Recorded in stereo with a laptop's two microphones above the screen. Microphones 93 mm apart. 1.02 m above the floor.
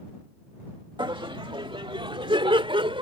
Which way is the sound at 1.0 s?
60° right (ahead or behind).